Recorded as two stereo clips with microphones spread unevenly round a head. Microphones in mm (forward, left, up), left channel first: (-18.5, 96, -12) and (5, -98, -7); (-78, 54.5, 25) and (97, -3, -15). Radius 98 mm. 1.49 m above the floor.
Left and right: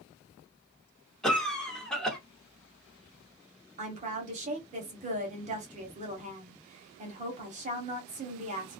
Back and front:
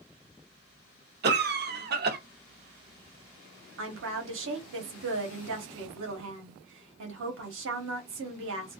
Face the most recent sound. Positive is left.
turn(degrees=-25)